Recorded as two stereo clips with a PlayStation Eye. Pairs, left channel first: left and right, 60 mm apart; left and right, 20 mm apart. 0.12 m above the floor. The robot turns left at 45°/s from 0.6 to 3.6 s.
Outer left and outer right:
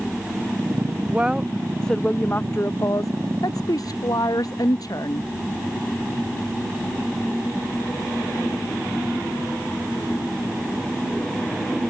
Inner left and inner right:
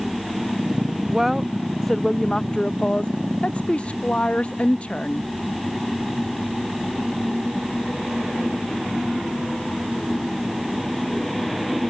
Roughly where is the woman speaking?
Behind right.